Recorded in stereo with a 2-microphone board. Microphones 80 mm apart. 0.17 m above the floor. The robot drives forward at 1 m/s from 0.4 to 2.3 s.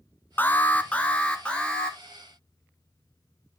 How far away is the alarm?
About 0.9 m.